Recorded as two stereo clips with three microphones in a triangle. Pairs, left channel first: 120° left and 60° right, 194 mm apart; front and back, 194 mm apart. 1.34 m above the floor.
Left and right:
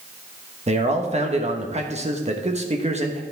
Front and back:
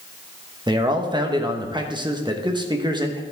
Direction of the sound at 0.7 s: 110° right.